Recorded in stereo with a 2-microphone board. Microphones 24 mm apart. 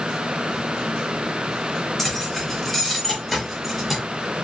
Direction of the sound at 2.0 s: 10° left (ahead or behind).